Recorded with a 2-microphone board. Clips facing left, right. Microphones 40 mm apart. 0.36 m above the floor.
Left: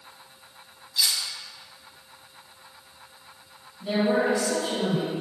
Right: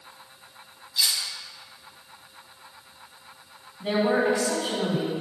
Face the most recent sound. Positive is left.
turn(degrees=-60)  # may be behind; listen again after turning